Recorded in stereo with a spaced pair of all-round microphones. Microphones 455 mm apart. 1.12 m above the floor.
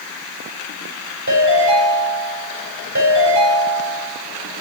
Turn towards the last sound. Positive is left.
turn(degrees=-40)  # may be behind; listen again after turning